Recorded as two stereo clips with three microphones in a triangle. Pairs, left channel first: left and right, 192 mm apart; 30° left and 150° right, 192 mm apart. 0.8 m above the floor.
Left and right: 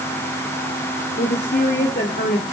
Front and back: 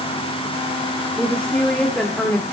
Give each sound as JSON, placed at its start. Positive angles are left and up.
{"t": 1.2, "sound": "a woman speaking", "azimuth_deg": 115, "distance_m": 1.9}